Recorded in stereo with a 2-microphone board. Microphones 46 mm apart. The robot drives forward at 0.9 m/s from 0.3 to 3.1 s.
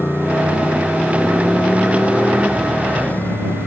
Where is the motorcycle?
50° left (ahead or behind); by 3.7 s 40° left (ahead or behind).